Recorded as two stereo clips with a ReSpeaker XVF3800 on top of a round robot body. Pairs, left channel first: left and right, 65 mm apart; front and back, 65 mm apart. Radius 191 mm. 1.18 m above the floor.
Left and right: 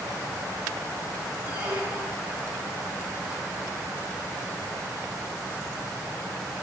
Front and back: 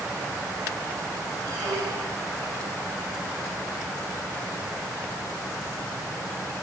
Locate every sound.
1.5 s a squeak: 155° right, 2.0 m